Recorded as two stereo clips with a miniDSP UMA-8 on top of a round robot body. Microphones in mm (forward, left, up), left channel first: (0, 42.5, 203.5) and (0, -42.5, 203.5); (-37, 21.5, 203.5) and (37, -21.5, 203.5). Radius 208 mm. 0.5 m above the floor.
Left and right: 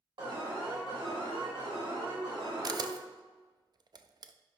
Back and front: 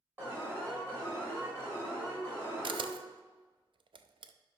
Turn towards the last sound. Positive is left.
turn(degrees=-50)